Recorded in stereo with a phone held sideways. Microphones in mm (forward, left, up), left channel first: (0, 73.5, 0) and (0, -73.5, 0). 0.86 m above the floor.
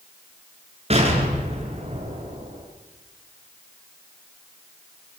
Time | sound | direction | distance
0.9 | an explosion | 40° right (ahead or behind) | 7 m